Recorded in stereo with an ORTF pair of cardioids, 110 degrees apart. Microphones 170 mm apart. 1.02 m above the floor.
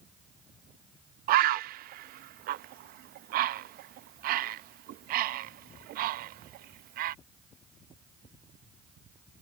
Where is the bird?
60° right.